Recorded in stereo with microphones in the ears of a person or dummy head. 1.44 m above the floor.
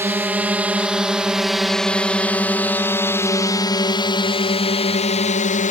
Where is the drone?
10° right (ahead or behind); by 5.7 s 45° left (ahead or behind).